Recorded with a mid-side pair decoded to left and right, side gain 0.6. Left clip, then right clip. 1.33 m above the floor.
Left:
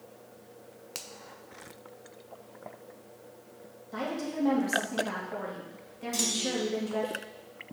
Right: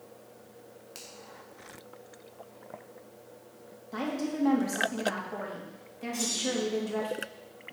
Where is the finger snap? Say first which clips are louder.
Left 5 dB; 45° left, 0.7 m.